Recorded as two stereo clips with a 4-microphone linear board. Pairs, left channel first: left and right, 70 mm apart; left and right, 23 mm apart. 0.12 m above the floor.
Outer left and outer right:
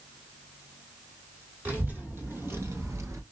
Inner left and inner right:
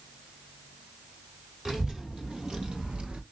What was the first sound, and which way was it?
A child speaking, 25° right (ahead or behind).